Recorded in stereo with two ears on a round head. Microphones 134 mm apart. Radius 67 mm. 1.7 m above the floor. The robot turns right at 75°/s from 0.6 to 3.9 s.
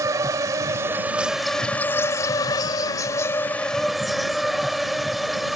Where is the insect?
25° right (ahead or behind); by 5.6 s centre (ahead or behind).